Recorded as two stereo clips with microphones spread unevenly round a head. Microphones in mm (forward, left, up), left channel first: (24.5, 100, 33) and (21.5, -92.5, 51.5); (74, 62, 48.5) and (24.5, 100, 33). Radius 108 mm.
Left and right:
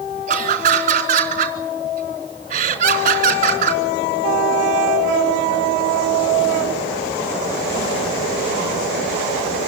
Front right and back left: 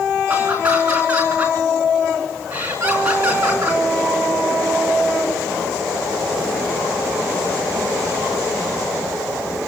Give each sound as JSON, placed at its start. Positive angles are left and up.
{"t": 0.3, "sound": "laughter", "azimuth_deg": -145, "distance_m": 4.5}